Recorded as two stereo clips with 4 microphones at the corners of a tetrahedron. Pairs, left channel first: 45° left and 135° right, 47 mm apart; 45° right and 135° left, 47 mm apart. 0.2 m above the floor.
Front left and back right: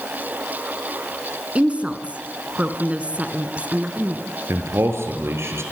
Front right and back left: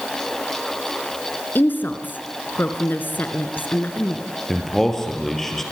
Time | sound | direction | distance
1.6 | a woman speaking | 80° right | 2.5 m
4.5 | a man speaking | 125° right | 5 m